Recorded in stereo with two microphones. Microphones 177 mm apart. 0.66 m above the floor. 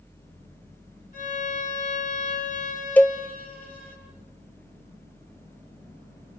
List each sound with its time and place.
1.1 s a violin: 50° left (ahead or behind), 7.5 m
3.0 s a cowbell: 10° left (ahead or behind), 0.6 m